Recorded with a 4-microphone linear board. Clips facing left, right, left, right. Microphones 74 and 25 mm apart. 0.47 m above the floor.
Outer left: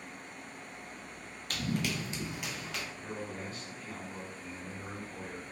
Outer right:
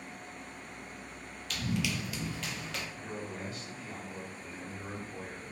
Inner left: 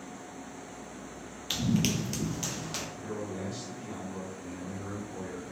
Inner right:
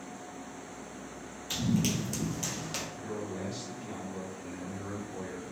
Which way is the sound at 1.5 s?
45° left (ahead or behind).